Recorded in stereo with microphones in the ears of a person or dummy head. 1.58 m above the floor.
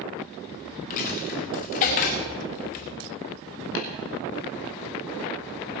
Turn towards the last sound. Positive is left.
turn(degrees=70)  # may be behind; listen again after turning